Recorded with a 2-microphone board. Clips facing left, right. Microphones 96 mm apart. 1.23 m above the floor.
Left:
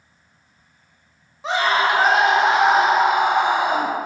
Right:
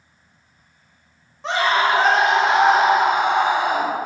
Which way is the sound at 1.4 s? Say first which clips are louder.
Even; 5° left (ahead or behind).